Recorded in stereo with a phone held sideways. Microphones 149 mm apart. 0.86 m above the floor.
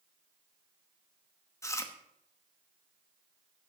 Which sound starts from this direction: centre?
Chewing, at 1.6 s.